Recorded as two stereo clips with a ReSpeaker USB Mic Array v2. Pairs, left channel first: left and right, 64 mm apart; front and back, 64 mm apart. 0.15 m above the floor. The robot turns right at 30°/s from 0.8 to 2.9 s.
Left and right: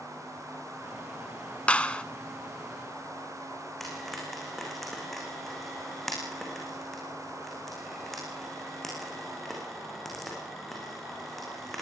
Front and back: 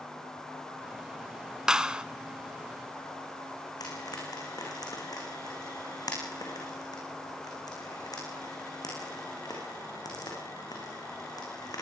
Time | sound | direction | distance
1.7 | a clap | 125° left | 0.8 m
3.8 | frying | straight ahead | 8 m